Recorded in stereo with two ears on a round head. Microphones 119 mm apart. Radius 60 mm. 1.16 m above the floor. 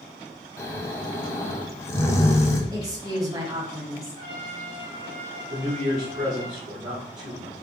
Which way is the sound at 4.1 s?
40° right (ahead or behind).